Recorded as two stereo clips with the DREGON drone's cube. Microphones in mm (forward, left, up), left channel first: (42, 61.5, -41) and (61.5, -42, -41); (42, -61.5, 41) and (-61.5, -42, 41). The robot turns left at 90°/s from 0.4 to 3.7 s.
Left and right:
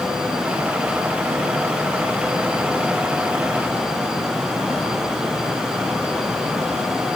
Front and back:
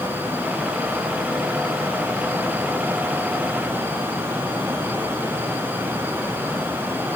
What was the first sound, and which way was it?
Only background noise.